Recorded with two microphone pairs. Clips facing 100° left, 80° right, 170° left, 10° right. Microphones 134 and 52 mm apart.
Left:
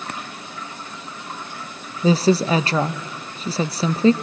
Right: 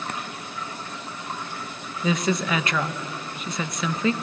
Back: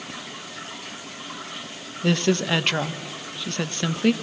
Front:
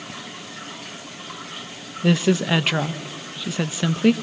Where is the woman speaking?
75° left, 0.6 m.